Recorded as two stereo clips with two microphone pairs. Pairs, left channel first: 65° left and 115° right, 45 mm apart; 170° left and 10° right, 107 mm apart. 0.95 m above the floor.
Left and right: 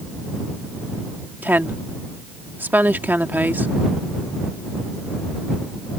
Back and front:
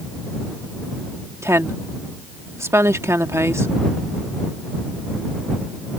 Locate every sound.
1.4 s a woman speaking: 75° right